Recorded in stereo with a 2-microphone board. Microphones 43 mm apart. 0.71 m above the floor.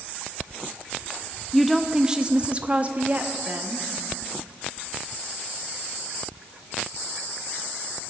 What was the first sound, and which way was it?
A woman speaking, centre (ahead or behind).